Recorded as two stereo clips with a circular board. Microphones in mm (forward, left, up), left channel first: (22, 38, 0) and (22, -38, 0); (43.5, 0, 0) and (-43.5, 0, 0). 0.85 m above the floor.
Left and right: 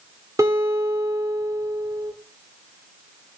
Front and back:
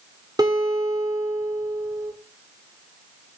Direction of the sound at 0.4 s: 135° right.